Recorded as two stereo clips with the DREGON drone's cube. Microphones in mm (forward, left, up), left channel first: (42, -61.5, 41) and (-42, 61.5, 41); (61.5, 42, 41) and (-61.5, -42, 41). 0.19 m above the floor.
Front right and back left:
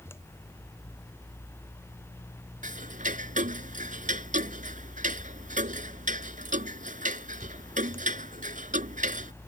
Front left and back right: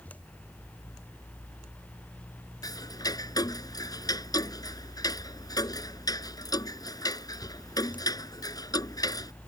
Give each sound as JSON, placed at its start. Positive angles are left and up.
{"t": 2.6, "sound": "ticking", "azimuth_deg": 100}